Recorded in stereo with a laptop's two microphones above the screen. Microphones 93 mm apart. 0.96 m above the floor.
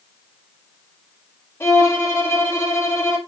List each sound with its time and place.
1.6 s a violin: 30° left (ahead or behind), 2 m